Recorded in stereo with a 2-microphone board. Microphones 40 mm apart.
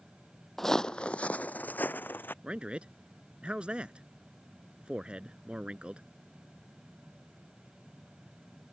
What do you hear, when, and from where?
0.6 s footsteps: 5° left (ahead or behind); by 2.3 s 55° left (ahead or behind)
2.4 s a man speaking: 25° right (ahead or behind)